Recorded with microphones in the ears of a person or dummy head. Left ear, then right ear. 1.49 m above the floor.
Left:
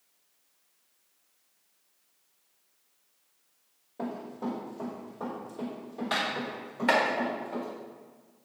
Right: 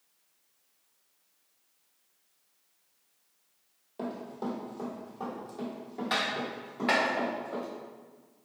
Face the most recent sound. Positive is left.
turn(degrees=15)  # may be behind; listen again after turning